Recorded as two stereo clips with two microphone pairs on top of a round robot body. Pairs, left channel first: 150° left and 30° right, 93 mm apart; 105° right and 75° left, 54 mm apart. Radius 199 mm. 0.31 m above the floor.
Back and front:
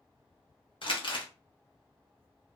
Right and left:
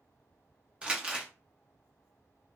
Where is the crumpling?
145° left, 1.0 m.